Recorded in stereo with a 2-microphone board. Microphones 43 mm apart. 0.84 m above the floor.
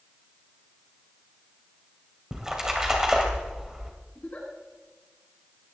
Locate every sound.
2.3 s a splash: 15° right (ahead or behind), 2.5 m
4.2 s a giggle: 35° left (ahead or behind), 6.5 m